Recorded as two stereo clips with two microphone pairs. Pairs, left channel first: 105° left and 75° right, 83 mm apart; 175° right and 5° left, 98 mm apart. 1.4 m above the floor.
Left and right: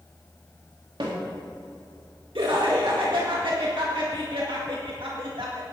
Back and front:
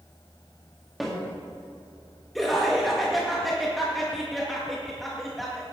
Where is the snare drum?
80° right, 3.5 m.